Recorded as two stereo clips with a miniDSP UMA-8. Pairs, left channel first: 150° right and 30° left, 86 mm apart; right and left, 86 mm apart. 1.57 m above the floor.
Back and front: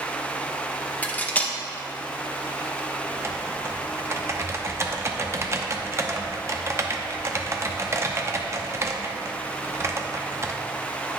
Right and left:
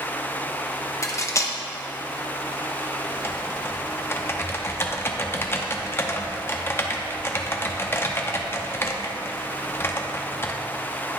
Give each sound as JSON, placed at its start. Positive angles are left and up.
{"t": 1.0, "sound": "cutlery clinking", "azimuth_deg": -90, "distance_m": 0.8}
{"t": 3.1, "sound": "typing on a keyboard", "azimuth_deg": -30, "distance_m": 0.7}